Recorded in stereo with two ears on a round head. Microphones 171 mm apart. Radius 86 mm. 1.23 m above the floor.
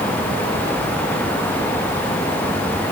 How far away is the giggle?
I don't hear a giggle.